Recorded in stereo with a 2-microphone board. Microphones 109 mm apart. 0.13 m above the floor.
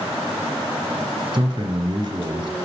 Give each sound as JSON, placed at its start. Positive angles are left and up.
{"t": 1.3, "sound": "a man speaking", "side_deg": -40, "distance_m": 1.9}